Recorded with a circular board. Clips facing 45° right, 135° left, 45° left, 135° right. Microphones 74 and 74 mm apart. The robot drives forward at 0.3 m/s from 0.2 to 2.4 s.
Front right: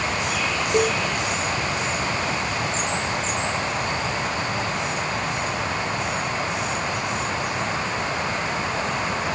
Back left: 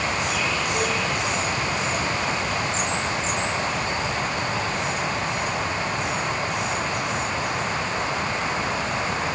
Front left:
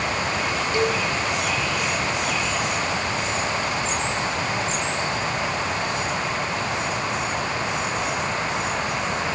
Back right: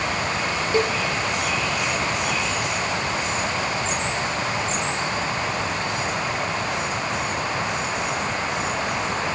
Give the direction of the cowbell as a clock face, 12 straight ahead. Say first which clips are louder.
Front right 8 dB, back right 1 dB; 2 o'clock.